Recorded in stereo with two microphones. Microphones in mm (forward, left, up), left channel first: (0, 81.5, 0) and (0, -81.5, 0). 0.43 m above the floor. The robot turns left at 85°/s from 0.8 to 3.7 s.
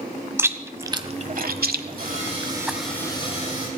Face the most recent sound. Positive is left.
turn(degrees=105)